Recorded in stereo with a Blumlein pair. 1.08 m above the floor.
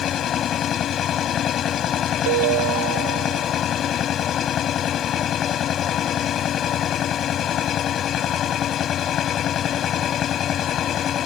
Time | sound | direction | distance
0.0 | a machine running | 25° left | ?
2.3 | a ringtone | 50° right | ?